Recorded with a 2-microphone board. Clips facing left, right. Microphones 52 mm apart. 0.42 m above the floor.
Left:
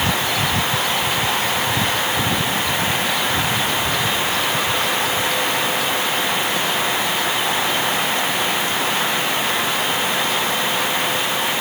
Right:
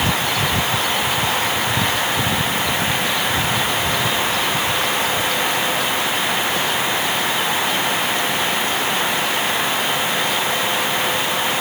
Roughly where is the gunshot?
No gunshot in this recording.